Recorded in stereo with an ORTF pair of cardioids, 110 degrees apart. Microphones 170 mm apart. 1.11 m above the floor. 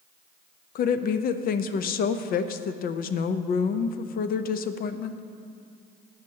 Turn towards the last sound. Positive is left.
turn(degrees=60)